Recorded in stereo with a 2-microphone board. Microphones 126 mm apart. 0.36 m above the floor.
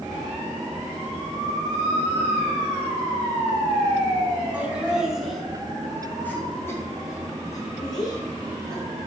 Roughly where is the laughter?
Centre.